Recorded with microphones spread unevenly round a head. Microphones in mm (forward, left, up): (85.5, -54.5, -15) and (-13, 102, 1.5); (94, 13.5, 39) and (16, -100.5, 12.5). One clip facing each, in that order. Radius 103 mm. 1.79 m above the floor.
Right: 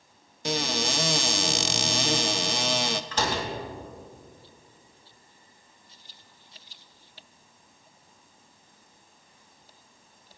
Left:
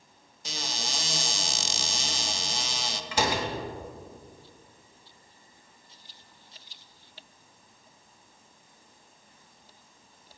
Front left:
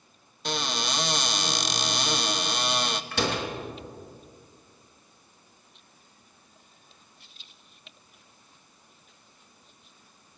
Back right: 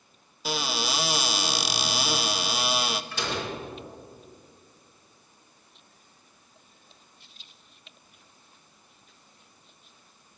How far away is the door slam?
About 2.5 m.